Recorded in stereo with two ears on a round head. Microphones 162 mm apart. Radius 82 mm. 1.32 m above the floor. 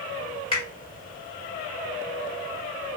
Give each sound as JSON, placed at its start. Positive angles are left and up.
{"t": 0.5, "sound": "a finger snap", "side_deg": 30, "distance_m": 1.8}